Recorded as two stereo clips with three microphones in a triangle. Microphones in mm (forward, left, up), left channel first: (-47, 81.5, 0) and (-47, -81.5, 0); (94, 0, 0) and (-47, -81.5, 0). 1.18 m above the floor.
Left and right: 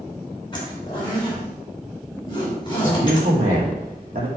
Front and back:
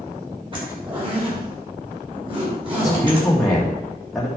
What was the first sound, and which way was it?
A zipper, 150° left.